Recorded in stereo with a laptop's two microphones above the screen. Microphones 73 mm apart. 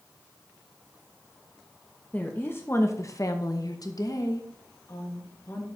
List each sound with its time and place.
2.1 s a woman speaking: 20° left (ahead or behind), 1.0 m; by 5.7 s 35° left (ahead or behind), 1.7 m